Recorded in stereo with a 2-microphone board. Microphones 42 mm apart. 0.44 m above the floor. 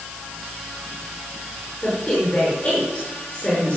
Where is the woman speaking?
30° left (ahead or behind), 6 m.